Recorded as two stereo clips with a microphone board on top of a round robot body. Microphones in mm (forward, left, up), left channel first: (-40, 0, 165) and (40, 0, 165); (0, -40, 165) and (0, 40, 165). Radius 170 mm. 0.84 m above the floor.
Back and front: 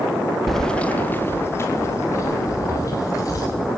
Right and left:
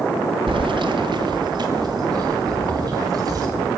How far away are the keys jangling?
About 1.1 m.